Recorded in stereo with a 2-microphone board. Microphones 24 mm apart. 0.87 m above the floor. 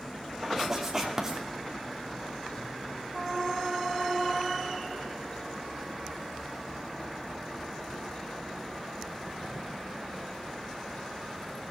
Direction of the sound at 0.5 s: 20° right (ahead or behind).